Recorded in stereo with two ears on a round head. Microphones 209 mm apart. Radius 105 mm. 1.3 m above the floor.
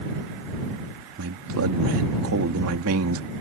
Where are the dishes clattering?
No dishes clattering in this recording.